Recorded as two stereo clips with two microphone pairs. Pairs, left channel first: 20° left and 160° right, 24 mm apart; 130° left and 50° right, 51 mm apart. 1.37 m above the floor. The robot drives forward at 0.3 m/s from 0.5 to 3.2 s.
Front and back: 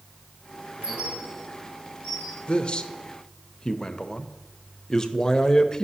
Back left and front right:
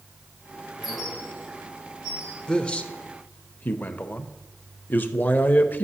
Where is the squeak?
135° right, 3 m; by 2.4 s 140° right, 3 m.